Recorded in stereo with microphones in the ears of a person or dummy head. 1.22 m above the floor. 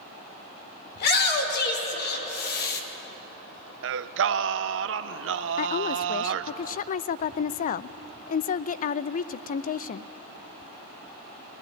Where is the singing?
60° right (ahead or behind), 0.5 m.